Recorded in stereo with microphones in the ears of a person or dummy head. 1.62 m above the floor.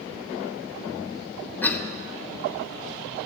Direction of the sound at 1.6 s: 20° left (ahead or behind).